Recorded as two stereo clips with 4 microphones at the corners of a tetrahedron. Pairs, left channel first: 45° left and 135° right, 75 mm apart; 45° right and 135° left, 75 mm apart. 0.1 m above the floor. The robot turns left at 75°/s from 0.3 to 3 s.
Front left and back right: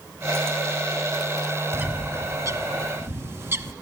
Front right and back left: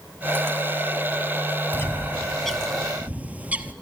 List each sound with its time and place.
1.7 s a bird: 75° right, 0.7 m; by 3.7 s 170° right, 0.7 m